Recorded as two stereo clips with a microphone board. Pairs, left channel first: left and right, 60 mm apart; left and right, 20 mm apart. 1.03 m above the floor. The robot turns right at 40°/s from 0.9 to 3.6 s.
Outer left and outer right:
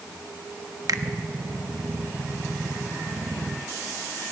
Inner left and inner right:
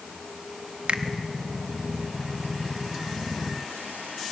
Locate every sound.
0.9 s a finger snap: 75° right (ahead or behind), 1.0 m; by 1.0 s 80° right, 1.0 m